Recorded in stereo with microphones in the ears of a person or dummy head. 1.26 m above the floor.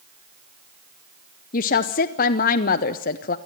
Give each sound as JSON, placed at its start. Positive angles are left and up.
{"t": 1.5, "sound": "a woman speaking", "side_deg": 45, "distance_m": 0.7}